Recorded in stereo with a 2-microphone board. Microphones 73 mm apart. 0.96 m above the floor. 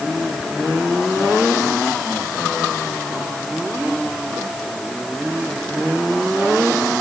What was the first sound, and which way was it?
Only background noise.